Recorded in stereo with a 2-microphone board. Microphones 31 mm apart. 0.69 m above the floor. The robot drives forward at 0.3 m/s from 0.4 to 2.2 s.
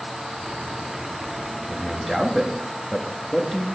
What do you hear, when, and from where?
1.7 s a man speaking: 5° left (ahead or behind), 1.1 m